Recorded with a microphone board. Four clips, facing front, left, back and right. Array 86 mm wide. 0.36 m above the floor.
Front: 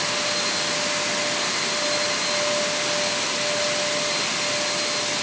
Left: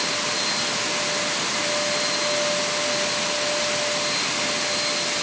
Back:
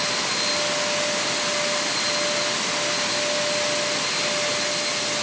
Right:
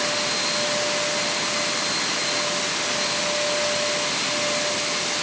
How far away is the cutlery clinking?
No cutlery clinking in this recording.